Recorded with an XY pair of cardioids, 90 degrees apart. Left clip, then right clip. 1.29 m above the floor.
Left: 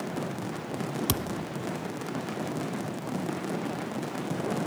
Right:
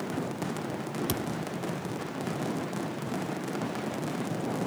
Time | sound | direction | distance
1.1 | a thud | 50° left | ?